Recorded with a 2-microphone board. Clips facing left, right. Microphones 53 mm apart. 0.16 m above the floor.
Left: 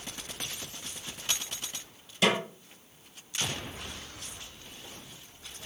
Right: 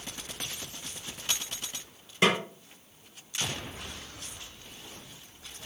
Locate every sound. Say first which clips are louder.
2.2 s a snare drum: right 1 dB; 35° right (ahead or behind), 2 m